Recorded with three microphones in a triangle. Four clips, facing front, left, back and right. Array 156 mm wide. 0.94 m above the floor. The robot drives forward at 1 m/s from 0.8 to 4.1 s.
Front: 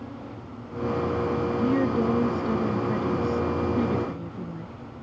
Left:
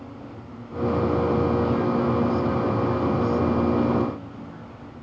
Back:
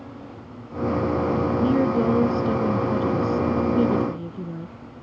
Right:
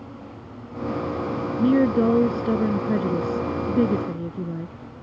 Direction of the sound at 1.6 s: 95° right.